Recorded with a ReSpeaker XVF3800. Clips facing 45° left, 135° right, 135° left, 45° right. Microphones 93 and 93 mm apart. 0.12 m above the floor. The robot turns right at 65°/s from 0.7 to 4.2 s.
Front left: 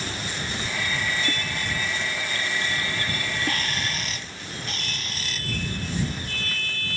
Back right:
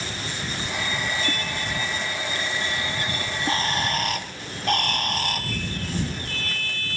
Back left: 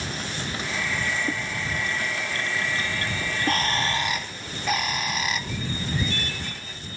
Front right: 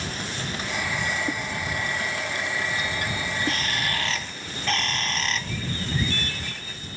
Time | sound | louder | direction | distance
3.2 | a bird | back right 2 dB, back left 2 dB | 150° left | ?